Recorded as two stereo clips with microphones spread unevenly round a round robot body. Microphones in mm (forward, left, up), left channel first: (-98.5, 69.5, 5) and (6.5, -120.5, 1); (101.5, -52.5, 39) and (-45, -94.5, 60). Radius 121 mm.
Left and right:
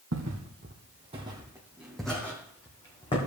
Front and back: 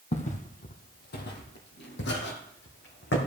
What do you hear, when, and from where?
0.1 s footsteps: 30° right, 1.4 m; by 3.2 s 50° left, 2.5 m